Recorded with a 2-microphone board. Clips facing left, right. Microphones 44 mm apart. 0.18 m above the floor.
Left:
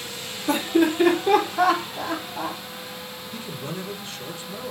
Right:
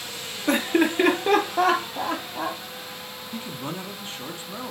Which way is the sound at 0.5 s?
55° right (ahead or behind).